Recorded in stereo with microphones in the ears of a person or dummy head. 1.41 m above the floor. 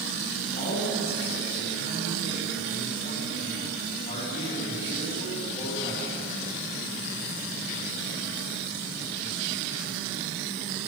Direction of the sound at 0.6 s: 45° left (ahead or behind).